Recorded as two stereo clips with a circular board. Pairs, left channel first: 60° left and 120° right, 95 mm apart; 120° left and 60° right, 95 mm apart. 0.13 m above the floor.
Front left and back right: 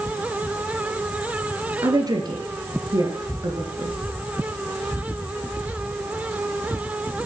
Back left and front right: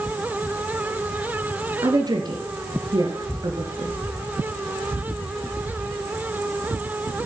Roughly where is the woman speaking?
Right.